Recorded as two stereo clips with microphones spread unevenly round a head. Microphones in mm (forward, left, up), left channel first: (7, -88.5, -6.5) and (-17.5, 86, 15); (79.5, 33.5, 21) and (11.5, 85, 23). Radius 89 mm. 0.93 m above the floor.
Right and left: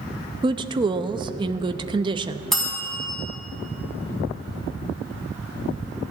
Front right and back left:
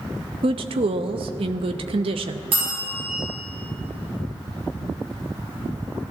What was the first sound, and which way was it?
A woman speaking, 165° left.